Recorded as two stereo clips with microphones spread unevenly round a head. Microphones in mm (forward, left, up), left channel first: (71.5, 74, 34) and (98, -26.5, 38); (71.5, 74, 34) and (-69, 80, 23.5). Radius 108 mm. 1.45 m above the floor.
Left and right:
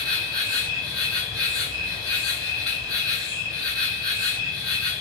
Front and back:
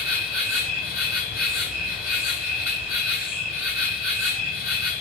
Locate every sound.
0.0 s an insect: 175° left, 1.5 m